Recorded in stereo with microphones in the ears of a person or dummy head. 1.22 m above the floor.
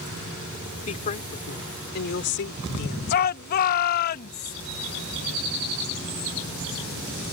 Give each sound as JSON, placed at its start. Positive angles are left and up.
{"t": 0.9, "sound": "a woman speaking", "side_deg": 40}
{"t": 3.1, "sound": "a shout", "side_deg": 45}